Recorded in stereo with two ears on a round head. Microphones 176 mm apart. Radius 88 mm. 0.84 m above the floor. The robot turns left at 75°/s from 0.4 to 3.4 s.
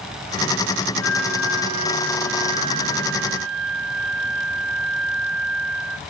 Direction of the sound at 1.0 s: 95° left.